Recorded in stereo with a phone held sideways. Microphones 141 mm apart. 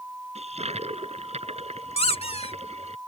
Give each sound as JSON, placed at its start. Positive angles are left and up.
{"t": 0.3, "sound": "a toilet flushing", "side_deg": -45}
{"t": 2.0, "sound": "a squeak", "side_deg": 45}